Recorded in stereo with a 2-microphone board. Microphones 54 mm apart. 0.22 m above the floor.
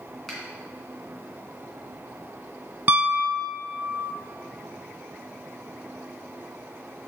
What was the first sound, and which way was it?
A finger snap, 5° left (ahead or behind).